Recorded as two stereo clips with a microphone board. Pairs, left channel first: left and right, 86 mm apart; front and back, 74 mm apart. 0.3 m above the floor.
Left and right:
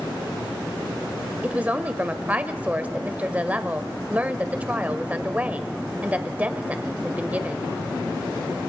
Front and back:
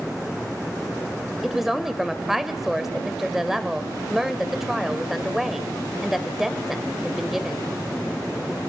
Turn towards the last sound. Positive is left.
turn(degrees=-105)